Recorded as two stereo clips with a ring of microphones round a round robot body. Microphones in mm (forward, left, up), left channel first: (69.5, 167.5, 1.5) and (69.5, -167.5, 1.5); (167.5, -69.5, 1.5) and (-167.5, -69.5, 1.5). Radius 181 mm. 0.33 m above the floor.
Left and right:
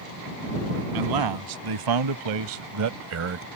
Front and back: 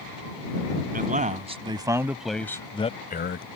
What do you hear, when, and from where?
0.9 s a man speaking: 115° right; by 3.5 s 45° right